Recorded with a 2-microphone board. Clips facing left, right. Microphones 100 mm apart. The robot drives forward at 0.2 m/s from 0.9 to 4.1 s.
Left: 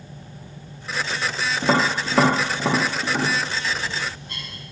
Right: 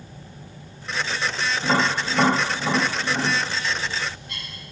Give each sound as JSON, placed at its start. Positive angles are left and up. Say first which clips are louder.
{"t": 1.6, "sound": "tapping", "louder": "left 2 dB", "side_deg": 80, "distance_m": 1.0}
{"t": 3.5, "sound": "a bird", "louder": "even", "side_deg": 35, "distance_m": 1.4}